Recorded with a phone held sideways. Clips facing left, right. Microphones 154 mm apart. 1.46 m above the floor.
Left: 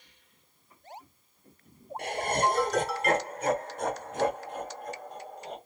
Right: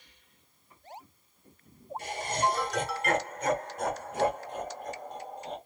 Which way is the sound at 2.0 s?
70° left (ahead or behind).